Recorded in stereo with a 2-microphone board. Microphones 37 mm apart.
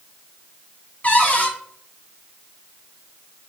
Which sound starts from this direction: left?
A cupboard door, at 1.0 s.